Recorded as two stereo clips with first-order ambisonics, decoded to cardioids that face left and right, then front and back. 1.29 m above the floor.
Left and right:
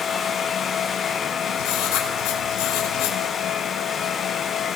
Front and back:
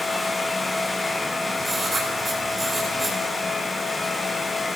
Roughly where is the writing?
Left.